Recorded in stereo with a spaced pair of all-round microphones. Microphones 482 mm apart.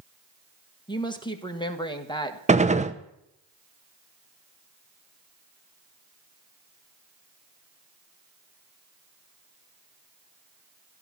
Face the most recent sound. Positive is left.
turn(degrees=-15)  # may be behind; listen again after turning